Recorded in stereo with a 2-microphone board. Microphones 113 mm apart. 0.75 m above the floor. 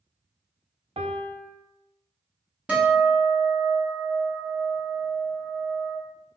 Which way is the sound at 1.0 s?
55° right (ahead or behind).